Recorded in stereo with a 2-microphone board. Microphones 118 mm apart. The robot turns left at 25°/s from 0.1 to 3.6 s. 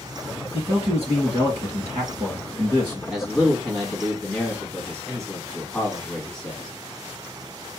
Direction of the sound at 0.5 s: 70° right.